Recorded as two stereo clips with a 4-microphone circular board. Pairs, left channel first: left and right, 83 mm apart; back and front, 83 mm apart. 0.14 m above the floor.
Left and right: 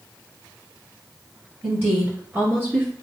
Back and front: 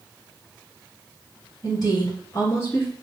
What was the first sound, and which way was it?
A woman speaking, 150° right.